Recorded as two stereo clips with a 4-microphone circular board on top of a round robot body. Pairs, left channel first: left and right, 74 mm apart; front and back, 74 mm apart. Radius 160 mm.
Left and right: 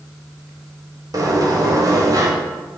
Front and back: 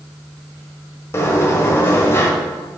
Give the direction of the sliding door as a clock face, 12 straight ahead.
2 o'clock.